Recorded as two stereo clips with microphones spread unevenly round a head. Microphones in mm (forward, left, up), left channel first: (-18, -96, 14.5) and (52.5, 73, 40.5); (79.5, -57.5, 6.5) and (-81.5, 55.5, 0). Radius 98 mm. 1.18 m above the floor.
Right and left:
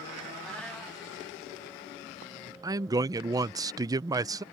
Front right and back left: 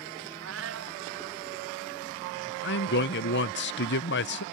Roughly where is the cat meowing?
Behind.